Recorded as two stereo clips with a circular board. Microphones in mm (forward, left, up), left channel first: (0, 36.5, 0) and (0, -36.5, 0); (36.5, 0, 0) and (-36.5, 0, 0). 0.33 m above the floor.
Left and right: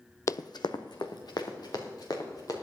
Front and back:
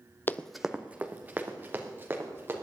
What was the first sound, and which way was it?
Running footsteps, 55° left.